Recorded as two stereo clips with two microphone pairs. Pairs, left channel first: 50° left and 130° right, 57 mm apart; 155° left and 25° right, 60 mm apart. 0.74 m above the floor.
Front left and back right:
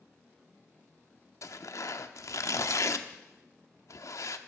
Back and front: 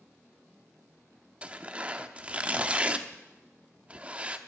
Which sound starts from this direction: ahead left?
Tearing paper, at 1.4 s.